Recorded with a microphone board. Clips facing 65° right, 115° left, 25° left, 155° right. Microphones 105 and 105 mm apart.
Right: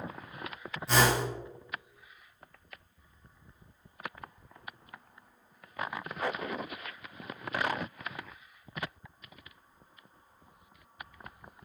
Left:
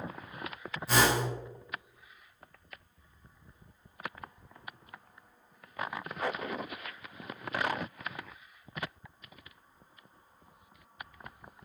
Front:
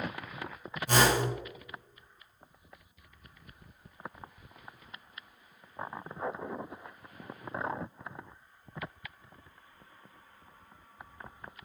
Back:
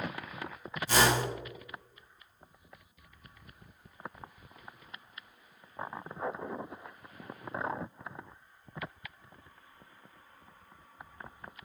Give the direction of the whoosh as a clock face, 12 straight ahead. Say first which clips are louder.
Right 1 dB, front 1 dB; 11 o'clock.